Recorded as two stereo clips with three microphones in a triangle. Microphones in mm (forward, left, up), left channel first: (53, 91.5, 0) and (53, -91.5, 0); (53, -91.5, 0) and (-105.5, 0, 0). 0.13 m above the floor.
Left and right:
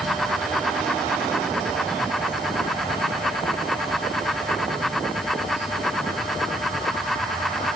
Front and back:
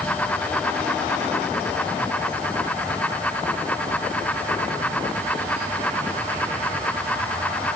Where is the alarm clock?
I don't hear an alarm clock.